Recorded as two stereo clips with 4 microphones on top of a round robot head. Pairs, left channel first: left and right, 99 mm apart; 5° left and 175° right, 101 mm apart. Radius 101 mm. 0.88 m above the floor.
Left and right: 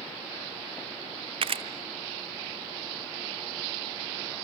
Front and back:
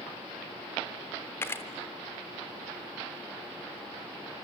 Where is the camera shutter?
65° right, 0.7 m.